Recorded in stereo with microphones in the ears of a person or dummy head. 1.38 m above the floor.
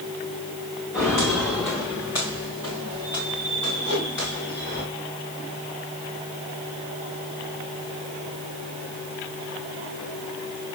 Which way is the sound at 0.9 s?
10° left (ahead or behind).